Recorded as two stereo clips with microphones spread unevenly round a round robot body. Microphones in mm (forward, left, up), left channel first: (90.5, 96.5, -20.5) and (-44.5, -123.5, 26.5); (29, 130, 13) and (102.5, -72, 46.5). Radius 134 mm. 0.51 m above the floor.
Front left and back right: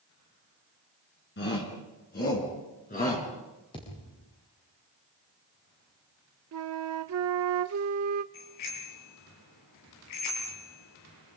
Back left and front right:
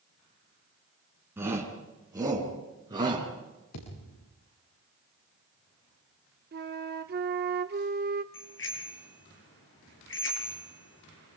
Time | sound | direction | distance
1.4 | a shout | 10° left | 6.5 m
3.7 | a thud | 135° left | 8.5 m
6.5 | a flute | 110° right | 0.9 m
8.3 | a bicycle bell | 85° left | 7 m